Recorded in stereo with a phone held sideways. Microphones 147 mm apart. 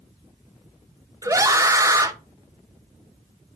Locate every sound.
1.2 s a scream: 20° right (ahead or behind), 0.5 m